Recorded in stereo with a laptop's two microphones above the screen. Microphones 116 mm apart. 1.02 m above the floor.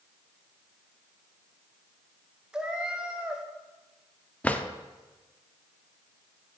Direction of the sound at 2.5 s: 5° right (ahead or behind).